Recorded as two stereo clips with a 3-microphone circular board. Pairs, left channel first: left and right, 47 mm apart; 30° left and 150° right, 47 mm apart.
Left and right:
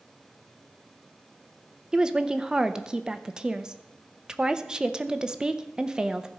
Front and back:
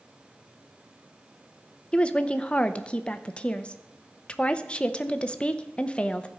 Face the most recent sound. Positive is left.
turn(degrees=-25)